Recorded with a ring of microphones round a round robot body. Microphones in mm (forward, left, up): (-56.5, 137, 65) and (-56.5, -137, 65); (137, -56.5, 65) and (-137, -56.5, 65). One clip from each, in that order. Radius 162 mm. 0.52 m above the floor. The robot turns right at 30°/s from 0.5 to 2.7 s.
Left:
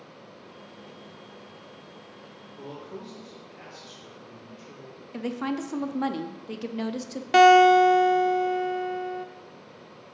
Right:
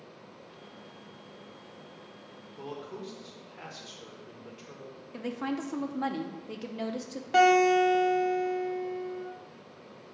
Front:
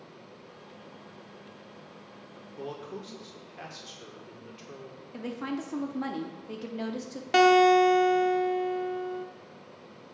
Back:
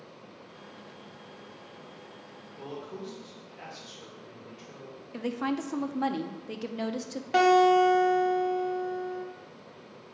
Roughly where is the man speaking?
Ahead right.